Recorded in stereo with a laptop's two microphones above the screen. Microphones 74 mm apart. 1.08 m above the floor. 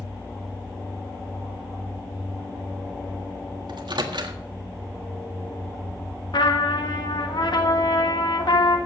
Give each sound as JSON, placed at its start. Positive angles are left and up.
{"t": 3.7, "sound": "a microwave", "side_deg": -75, "distance_m": 1.6}
{"t": 6.3, "sound": "a trumpet", "side_deg": 75, "distance_m": 1.6}